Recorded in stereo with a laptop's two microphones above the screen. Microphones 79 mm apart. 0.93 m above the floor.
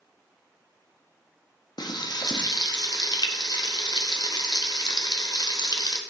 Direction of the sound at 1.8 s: 70° left (ahead or behind).